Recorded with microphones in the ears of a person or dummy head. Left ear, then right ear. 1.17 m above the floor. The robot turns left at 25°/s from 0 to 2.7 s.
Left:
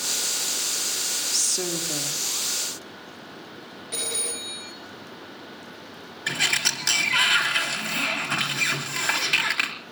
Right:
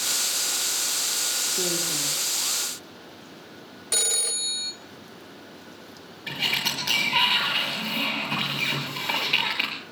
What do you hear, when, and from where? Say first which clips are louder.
1.3 s a woman speaking: even; 70° left (ahead or behind), 1.8 m; by 2.2 s 75° left (ahead or behind), 1.8 m
3.9 s a phone ringing: right 5 dB; 40° right (ahead or behind), 1.7 m
6.3 s a sliding door: left 2 dB; 50° left (ahead or behind), 3 m